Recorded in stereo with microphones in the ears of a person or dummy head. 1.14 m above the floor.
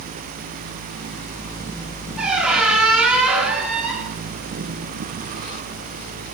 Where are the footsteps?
I don't hear footsteps.